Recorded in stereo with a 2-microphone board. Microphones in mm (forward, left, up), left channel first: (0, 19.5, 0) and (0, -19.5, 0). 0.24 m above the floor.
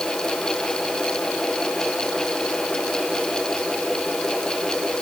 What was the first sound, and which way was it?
Only background noise.